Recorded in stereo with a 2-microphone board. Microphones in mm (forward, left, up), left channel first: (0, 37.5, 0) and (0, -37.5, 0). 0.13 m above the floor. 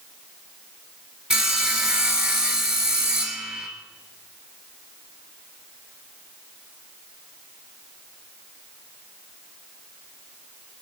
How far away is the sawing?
About 1.0 m.